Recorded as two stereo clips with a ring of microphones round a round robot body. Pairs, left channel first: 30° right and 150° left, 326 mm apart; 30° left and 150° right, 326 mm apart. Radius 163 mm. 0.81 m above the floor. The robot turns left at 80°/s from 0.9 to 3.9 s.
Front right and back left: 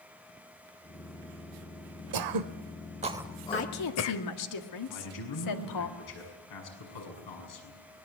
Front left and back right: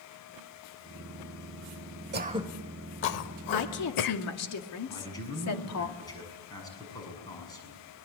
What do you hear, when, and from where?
2.1 s throat clearing: 155° left, 0.8 m; by 4.2 s 15° left, 0.8 m
3.5 s a woman speaking: 25° left, 2 m; by 5.9 s 10° right, 2 m
4.9 s a man speaking: 50° right, 7 m